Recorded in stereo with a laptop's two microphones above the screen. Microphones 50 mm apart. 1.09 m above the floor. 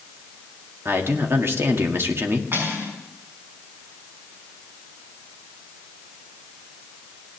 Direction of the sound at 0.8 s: 50° right (ahead or behind).